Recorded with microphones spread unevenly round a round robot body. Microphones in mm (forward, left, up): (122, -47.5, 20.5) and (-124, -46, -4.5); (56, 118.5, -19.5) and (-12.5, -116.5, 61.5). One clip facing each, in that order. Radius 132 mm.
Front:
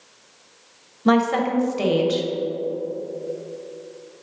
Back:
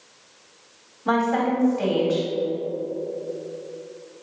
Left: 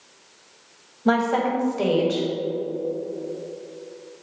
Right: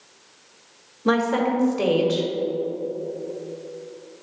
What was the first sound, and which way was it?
A woman speaking, 20° right.